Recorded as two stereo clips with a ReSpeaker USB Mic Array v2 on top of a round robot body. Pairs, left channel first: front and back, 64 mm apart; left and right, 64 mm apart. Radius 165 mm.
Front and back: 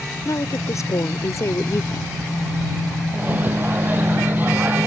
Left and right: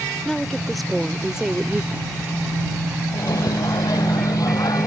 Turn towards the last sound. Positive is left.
turn(degrees=120)